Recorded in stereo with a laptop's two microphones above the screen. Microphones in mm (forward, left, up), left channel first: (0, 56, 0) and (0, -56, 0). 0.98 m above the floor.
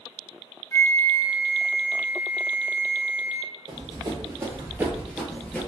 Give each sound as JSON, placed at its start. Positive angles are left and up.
{"t": 0.7, "sound": "a flute", "side_deg": 25, "distance_m": 0.5}
{"t": 3.7, "sound": "running footsteps", "side_deg": -45, "distance_m": 1.4}